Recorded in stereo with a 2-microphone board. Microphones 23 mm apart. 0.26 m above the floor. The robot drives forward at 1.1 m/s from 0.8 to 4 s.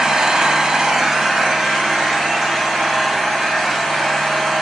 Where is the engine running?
35° right (ahead or behind), 0.9 m; by 4.6 s 5° right (ahead or behind), 4 m.